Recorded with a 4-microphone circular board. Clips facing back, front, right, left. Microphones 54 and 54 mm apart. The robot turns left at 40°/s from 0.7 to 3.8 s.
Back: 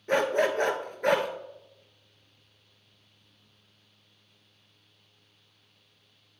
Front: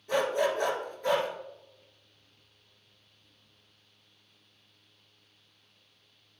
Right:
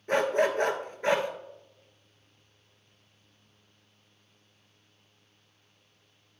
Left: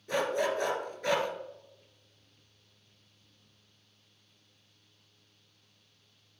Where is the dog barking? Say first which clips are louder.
Back 3 dB, right 5 dB; 135° right, 1.3 m; by 1.3 s 160° right, 1.3 m.